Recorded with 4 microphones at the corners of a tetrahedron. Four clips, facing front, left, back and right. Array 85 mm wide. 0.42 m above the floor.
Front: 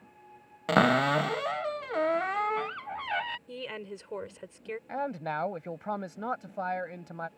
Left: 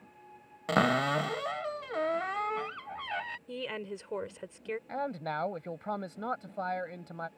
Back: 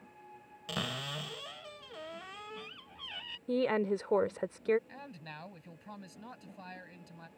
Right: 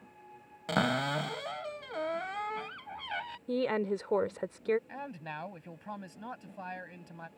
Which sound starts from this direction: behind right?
A woman speaking, at 3.5 s.